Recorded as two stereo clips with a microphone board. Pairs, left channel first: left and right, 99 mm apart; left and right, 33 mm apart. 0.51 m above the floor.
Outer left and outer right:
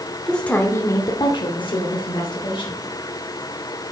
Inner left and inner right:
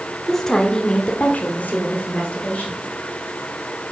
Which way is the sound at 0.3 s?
5° left (ahead or behind).